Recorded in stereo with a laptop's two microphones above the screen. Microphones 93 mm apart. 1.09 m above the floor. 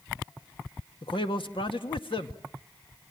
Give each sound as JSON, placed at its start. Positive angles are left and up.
{"t": 1.0, "sound": "a man speaking", "side_deg": 75, "distance_m": 1.8}